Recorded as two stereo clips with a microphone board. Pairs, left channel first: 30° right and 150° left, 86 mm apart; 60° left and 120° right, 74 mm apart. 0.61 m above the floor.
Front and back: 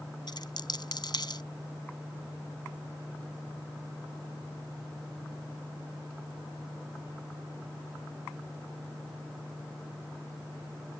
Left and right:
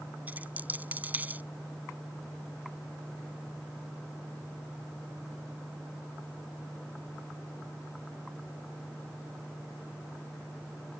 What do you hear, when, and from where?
0.3 s a dropped coin: 55° right